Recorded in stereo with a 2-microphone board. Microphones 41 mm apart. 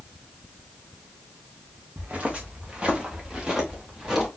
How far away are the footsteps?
About 2.5 m.